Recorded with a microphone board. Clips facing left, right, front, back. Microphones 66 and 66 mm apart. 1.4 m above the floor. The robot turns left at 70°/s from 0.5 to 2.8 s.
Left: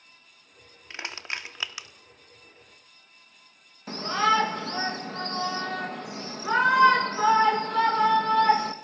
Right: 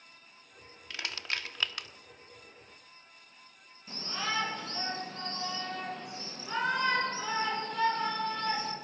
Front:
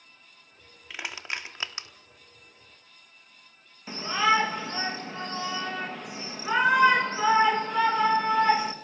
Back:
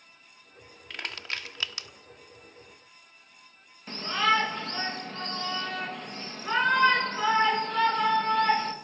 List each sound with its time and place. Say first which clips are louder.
0.9 s crushing: left 2 dB, front 1 dB; 80° left, 0.9 m; by 1.9 s 15° left, 0.9 m
3.9 s a shout: left 13 dB, front 2 dB; 80° left, 2 m